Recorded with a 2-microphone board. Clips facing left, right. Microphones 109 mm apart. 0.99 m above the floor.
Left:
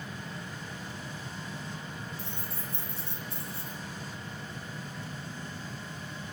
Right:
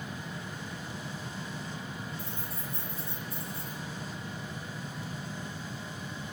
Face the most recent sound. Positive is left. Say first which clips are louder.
# right 1 dB
turn(degrees=75)  # may be behind; listen again after turning